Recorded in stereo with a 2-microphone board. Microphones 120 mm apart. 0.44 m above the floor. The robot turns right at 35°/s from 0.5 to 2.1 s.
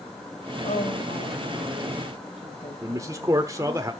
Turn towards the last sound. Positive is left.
turn(degrees=-30)  # may be behind; listen again after turning